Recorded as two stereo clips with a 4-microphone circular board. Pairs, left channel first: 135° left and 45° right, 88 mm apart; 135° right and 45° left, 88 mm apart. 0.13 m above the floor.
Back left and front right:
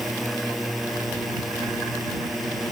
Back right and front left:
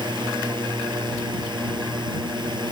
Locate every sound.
0.0 s a drone: 45° left